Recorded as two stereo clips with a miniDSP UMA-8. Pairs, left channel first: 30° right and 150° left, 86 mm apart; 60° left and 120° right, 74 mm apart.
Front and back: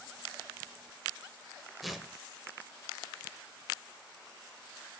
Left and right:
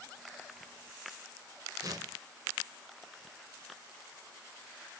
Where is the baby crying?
I don't hear a baby crying.